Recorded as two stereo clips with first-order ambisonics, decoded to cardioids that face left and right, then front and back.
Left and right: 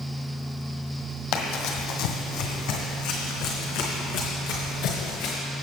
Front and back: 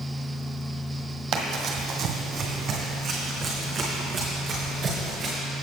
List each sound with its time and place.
1.3 s running footsteps: 120° left, 1.7 m; by 5.3 s 110° left, 4.5 m